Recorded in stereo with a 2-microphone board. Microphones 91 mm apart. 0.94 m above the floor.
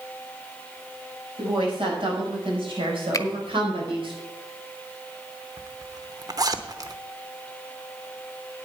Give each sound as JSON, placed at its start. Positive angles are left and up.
{"t": 1.4, "sound": "a woman speaking", "side_deg": -75, "distance_m": 5.5}
{"t": 3.1, "sound": "a finger snap", "side_deg": 35, "distance_m": 0.8}
{"t": 5.6, "sound": "a zipper", "side_deg": -45, "distance_m": 0.8}